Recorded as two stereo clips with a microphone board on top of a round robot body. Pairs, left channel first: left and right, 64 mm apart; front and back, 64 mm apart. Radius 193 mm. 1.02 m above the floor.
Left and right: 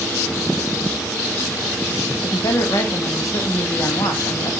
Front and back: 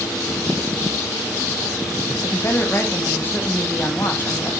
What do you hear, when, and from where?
2.2 s a woman speaking: 60° left, 1.5 m